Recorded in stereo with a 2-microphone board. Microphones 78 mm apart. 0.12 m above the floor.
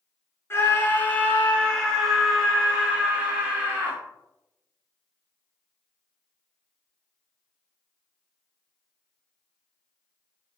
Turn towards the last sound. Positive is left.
turn(degrees=-20)  # may be behind; listen again after turning